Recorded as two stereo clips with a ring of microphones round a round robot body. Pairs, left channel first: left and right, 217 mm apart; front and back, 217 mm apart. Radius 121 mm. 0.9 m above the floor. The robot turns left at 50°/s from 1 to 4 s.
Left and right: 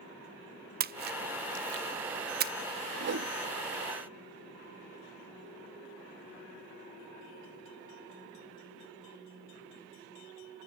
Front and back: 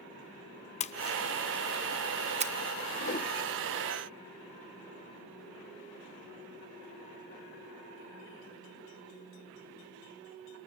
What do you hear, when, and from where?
0.8 s a splash: 55° right, 0.6 m; by 2.5 s 130° right, 0.6 m
3.0 s a whoosh: 50° right, 1.0 m; by 3.3 s 65° right, 1.0 m